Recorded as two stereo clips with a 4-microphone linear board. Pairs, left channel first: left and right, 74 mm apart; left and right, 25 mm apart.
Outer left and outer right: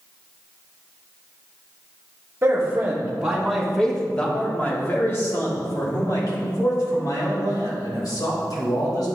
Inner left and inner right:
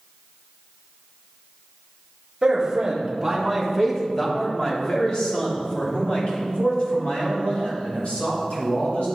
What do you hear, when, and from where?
2.4 s a man speaking: 30° right (ahead or behind), 1.7 m; by 9.1 s 75° left (ahead or behind), 4 m